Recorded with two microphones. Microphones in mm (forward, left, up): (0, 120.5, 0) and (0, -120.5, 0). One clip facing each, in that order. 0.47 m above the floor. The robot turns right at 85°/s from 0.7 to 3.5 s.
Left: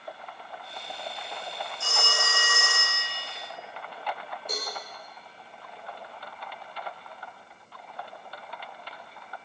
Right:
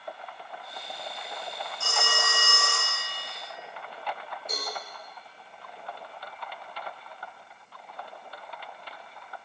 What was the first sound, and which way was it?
A phone ringing, 160° left.